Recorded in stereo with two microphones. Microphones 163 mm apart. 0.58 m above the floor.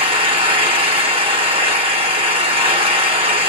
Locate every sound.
0.0 s an engine running: 35° right (ahead or behind), 0.7 m